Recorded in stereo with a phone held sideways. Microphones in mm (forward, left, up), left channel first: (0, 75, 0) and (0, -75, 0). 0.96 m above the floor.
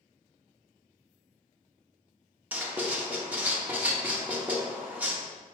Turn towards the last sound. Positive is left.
turn(degrees=-10)  # may be behind; listen again after turning